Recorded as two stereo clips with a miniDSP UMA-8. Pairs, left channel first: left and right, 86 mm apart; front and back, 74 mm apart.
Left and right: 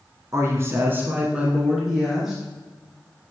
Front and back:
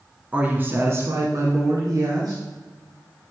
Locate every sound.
0.3 s a woman speaking: 120° right, 1.5 m; by 2.4 s straight behind, 2 m